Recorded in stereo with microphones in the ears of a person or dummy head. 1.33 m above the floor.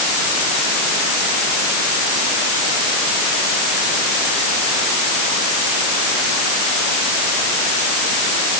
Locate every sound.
Only background noise.